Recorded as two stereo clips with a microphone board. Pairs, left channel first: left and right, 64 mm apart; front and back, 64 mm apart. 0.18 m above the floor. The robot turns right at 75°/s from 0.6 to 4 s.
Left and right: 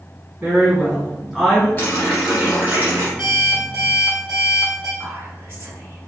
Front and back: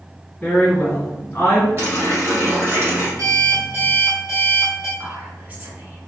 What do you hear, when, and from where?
0.4 s a woman speaking: 40° right, 1.3 m; by 1.7 s 40° left, 1.3 m
1.8 s a running tap: 140° left, 1.9 m; by 3.1 s 120° right, 1.9 m
3.2 s an alarm clock: 150° right, 1.9 m; by 4.9 s 90° right, 1.9 m
5.0 s whispering: 120° right, 1.8 m